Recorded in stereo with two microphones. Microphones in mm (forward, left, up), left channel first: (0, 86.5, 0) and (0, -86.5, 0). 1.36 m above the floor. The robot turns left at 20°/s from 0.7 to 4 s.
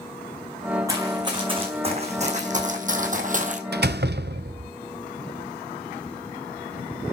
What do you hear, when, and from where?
0.9 s running footsteps: 20° right (ahead or behind), 6 m; by 3.6 s 45° right (ahead or behind), 2.0 m
3.7 s a door slam: 70° right (ahead or behind), 0.6 m; by 4.7 s 75° right (ahead or behind), 0.6 m